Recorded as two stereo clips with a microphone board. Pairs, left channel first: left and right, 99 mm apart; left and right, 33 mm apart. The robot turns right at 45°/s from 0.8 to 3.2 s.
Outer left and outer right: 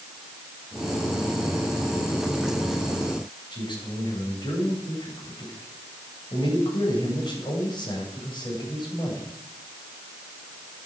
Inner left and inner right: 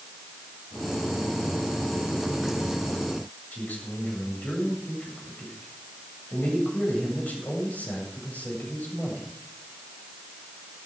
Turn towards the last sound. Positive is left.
turn(degrees=50)  # may be behind; listen again after turning